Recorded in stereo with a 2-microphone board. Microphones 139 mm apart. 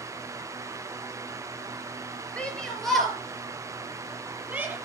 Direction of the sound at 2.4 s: 5° left (ahead or behind).